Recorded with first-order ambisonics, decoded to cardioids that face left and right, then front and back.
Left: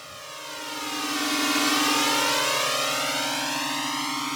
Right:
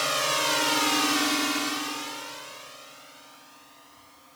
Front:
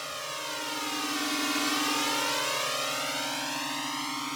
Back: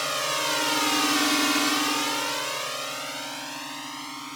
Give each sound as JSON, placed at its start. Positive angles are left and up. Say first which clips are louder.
{"t": 0.0, "sound": "a drone", "louder": "right 13 dB, back 9 dB", "azimuth_deg": -120}